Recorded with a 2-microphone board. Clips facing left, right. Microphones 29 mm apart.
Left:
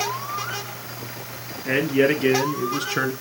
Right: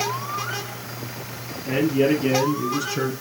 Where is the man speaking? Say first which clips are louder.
Left 1 dB; 50° left (ahead or behind), 3.5 m.